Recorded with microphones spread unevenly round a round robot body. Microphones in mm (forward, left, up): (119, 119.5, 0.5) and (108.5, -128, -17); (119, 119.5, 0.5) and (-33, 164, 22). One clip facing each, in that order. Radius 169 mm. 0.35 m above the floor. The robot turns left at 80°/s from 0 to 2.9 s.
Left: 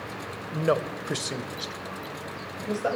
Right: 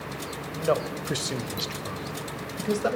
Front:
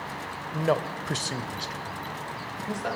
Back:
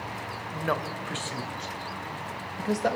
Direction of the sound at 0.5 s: 35° left.